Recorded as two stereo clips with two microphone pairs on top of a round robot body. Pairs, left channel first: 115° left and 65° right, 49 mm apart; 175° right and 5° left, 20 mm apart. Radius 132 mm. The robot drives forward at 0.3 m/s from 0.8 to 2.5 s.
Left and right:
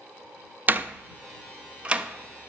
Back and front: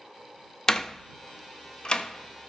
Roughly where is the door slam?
Behind right.